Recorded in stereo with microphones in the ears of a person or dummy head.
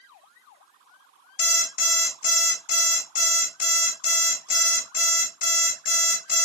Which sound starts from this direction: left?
An alarm clock, at 1.4 s.